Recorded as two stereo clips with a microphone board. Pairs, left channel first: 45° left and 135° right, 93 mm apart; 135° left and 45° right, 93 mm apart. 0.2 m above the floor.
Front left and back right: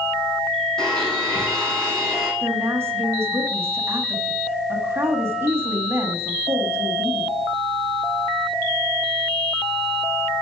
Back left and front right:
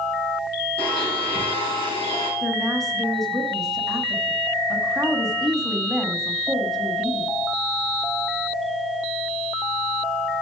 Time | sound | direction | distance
0.8 | a blender | 130° left | 5 m
2.4 | a woman speaking | 140° right | 1.2 m